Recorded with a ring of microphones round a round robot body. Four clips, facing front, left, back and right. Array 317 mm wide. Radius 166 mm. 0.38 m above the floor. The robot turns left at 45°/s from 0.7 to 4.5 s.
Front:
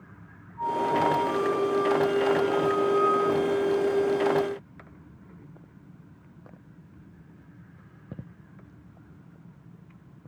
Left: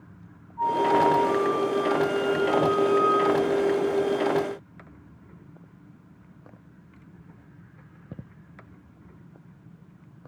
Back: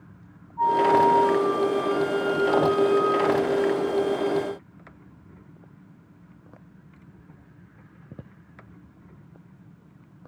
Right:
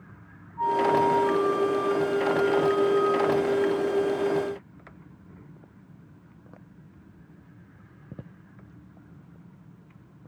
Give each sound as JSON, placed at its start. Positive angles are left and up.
{"t": 0.6, "sound": "a flute", "azimuth_deg": -165, "distance_m": 6.5}